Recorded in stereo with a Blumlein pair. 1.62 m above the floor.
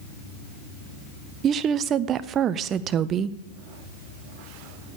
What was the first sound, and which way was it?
A woman speaking, 30° right.